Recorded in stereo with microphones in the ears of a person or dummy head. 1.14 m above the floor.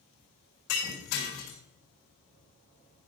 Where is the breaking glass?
60° left (ahead or behind), 5 m.